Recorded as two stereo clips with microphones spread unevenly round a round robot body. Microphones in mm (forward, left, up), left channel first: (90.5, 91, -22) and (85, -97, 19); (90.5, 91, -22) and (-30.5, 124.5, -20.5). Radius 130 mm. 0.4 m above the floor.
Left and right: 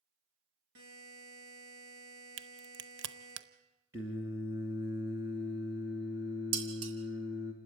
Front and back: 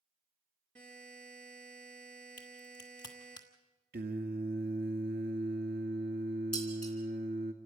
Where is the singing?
175° right, 1.9 m.